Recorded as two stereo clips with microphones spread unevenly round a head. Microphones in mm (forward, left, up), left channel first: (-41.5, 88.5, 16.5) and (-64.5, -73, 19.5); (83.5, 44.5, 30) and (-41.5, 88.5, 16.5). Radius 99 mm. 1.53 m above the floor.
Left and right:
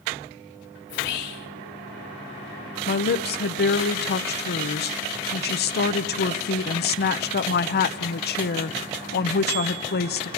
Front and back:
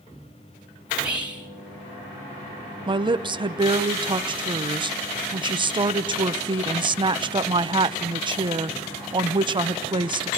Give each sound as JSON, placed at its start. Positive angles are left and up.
{"t": 0.9, "sound": "whispering", "azimuth_deg": 80, "distance_m": 3.0}
{"t": 2.9, "sound": "a woman speaking", "azimuth_deg": 105, "distance_m": 0.9}